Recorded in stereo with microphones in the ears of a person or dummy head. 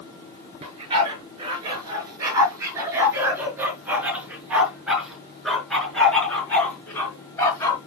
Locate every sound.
0.6 s a dog barking: 25° right (ahead or behind), 6 m; by 7.8 s 20° left (ahead or behind), 5.5 m